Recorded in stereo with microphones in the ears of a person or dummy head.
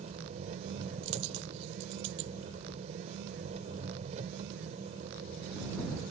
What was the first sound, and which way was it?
An engine running, 35° right (ahead or behind).